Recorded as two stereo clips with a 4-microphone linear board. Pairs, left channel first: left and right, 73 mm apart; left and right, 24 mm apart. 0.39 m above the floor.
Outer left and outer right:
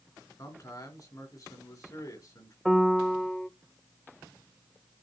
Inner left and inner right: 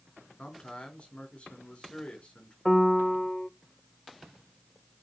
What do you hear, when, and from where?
0.4 s a man speaking: 55° left (ahead or behind), 4 m
2.6 s a piano: centre (ahead or behind), 0.6 m